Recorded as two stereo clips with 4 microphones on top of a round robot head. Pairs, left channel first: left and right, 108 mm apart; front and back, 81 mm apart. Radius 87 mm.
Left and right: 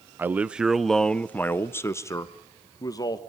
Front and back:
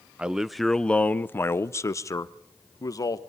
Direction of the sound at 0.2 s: 130° right.